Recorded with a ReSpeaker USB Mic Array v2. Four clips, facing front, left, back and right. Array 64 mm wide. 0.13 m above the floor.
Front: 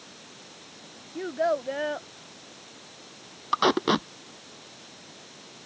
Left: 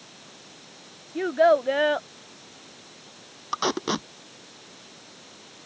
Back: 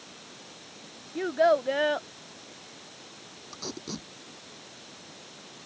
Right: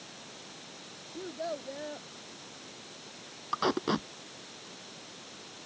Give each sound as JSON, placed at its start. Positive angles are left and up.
{"t": 1.1, "sound": "a child speaking", "azimuth_deg": 105}
{"t": 3.5, "sound": "tape being pulled", "azimuth_deg": 10}